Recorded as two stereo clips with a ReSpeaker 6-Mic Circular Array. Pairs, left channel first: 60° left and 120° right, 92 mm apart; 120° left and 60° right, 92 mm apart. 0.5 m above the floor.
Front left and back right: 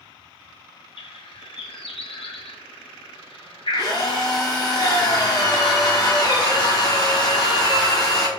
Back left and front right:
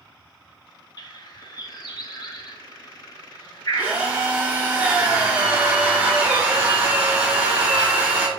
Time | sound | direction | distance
1.0 | a bird | 80° left | 0.5 m
3.7 | a drill | 15° left | 1.3 m